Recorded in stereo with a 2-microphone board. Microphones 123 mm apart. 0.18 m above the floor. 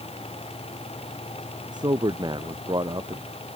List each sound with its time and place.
1.7 s a man speaking: 35° right (ahead or behind)